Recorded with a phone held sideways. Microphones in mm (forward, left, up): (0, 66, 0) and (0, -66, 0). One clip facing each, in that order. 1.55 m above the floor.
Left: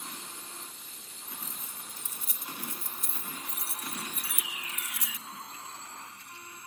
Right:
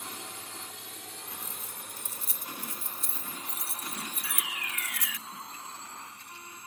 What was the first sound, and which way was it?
A drone, 65° right (ahead or behind).